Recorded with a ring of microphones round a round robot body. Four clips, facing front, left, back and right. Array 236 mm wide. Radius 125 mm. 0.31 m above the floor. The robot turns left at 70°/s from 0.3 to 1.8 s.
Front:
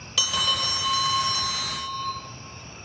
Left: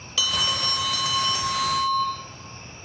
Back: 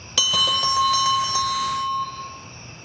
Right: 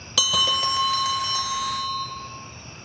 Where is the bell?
130° right, 0.7 m; by 2.1 s 125° left, 0.7 m.